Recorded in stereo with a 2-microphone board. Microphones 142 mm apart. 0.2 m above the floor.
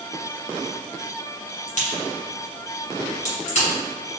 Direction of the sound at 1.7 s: 55° left (ahead or behind).